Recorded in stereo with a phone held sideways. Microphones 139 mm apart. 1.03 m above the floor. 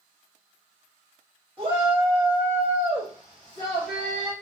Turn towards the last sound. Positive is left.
turn(degrees=25)  # may be behind; listen again after turning